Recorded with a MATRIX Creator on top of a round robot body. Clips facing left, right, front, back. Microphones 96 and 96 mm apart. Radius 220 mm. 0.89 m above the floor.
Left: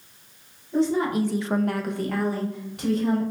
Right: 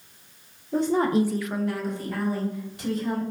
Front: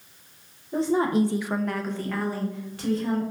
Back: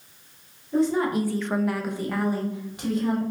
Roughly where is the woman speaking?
Ahead right.